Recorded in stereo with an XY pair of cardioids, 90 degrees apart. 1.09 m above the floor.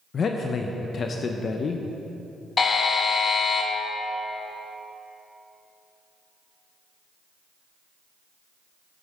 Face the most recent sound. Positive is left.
turn(degrees=45)